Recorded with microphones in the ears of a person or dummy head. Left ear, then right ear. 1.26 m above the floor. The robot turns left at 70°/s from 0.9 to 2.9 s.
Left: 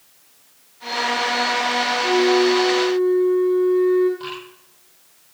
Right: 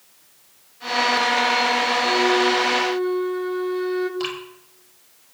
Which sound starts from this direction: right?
Dripping, at 4.2 s.